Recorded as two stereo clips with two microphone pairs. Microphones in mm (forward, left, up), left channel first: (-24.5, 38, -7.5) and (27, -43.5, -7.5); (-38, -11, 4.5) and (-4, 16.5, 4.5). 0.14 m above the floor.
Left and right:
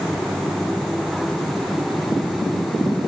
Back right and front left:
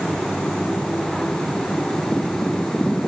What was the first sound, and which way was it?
Only background noise.